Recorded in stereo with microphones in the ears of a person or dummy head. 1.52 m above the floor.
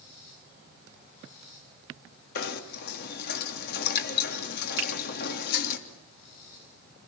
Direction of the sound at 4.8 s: 65° right (ahead or behind).